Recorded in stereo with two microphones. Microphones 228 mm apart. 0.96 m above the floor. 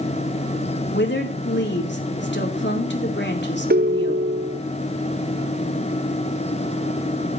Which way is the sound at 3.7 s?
45° right (ahead or behind).